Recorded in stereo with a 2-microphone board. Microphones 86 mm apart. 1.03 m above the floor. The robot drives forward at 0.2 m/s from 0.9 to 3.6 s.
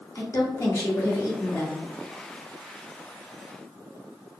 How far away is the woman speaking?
About 0.9 m.